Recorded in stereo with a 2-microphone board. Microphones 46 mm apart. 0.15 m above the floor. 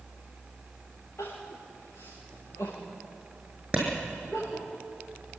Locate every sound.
1.2 s crying: 70° left (ahead or behind), 8.5 m
3.7 s a clap: 25° right (ahead or behind), 6 m